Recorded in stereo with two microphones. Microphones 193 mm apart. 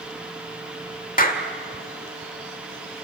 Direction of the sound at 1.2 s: 45° left (ahead or behind).